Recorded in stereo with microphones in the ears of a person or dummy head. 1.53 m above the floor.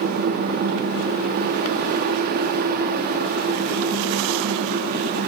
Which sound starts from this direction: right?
A fan, at 0.0 s.